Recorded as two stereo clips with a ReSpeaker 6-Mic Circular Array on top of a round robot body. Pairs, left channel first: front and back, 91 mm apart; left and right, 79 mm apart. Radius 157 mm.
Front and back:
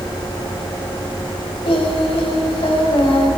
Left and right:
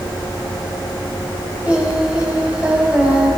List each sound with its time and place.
1.6 s singing: 15° right, 5.5 m